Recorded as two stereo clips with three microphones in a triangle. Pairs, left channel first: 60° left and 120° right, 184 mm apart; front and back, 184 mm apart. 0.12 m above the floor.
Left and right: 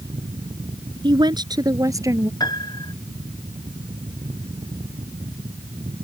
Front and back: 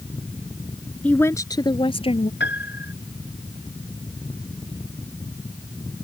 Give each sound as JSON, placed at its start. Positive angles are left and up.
{"t": 1.0, "sound": "a woman speaking", "azimuth_deg": -75}
{"t": 2.4, "sound": "a piano", "azimuth_deg": -10}